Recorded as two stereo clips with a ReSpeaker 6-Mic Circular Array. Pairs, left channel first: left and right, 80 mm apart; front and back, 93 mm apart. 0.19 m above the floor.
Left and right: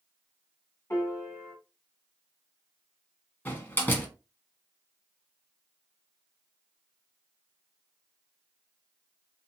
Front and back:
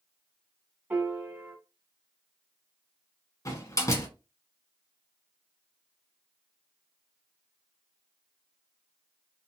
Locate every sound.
0.9 s a piano: 125° left, 1.4 m
3.5 s a door slam: 35° left, 1.2 m